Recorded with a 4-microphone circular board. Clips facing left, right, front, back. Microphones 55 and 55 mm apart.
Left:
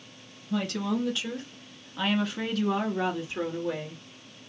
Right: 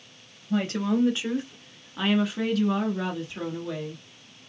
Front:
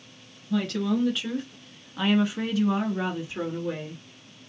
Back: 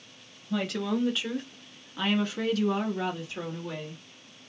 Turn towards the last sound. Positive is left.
turn(degrees=40)